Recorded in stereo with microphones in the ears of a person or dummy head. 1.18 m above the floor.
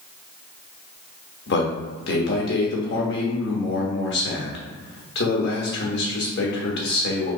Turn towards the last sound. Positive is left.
turn(degrees=65)  # may be behind; listen again after turning